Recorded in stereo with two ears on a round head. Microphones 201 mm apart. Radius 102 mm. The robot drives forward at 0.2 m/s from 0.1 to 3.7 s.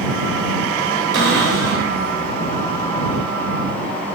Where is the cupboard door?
85° right, 1.4 m; by 1.9 s 80° right, 1.4 m.